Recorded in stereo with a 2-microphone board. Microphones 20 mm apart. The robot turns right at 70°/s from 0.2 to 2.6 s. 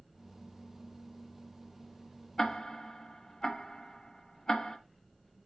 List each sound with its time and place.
2.4 s ticking: 25° left (ahead or behind), 0.9 m; by 4.8 s 30° left (ahead or behind), 0.9 m